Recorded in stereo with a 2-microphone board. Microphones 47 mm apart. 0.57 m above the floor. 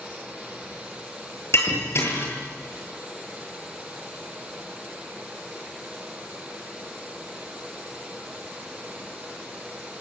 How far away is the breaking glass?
About 8.5 m.